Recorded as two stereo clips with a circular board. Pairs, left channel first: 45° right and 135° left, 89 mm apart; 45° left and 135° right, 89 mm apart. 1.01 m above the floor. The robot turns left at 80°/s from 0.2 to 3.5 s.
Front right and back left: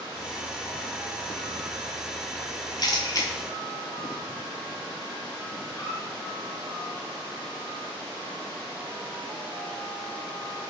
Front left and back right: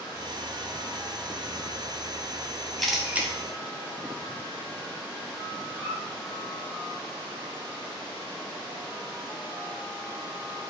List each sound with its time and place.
2.8 s a camera shutter: 40° right, 0.6 m; by 3.3 s 80° right, 0.6 m
5.7 s a squeak: 75° right, 1.1 m